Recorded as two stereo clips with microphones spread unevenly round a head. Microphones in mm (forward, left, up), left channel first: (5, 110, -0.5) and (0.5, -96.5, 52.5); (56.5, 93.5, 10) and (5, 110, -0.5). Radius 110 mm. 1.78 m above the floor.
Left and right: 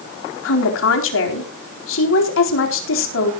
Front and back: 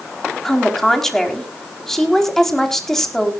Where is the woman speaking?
60° left, 4 m.